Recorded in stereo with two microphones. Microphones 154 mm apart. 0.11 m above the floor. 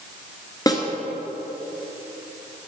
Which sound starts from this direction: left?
A snare drum, at 0.7 s.